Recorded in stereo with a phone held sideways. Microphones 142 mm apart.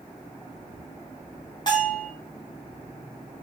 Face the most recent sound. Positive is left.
turn(degrees=30)  # may be behind; listen again after turning